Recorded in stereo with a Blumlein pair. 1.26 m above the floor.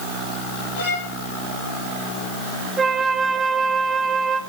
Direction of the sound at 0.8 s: 55° left.